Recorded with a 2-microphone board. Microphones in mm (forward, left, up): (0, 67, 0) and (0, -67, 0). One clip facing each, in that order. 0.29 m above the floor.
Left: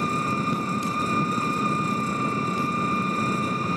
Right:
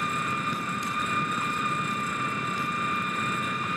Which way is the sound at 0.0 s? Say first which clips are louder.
Left 5 dB; 35° left (ahead or behind).